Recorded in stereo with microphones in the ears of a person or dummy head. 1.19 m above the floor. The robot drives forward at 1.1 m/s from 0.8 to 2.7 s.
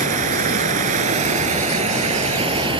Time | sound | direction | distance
0.0 | running water | 50° right (ahead or behind) | ?